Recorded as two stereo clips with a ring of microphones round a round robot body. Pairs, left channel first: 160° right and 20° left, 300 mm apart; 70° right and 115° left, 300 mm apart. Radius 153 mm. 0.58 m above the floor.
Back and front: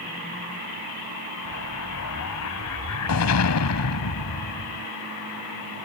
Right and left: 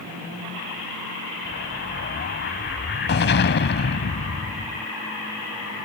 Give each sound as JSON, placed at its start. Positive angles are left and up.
{"t": 1.4, "sound": "an explosion", "azimuth_deg": -120}